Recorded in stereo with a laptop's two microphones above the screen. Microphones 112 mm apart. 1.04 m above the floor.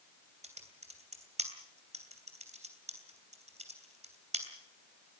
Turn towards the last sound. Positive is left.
turn(degrees=-80)